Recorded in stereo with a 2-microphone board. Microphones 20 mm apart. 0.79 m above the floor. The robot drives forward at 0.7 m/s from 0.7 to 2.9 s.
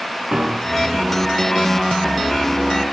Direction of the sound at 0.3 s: 50° right (ahead or behind).